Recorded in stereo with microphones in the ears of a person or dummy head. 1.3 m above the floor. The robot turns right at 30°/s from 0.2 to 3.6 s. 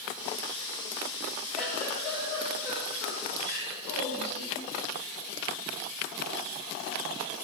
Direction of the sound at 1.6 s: 5° left.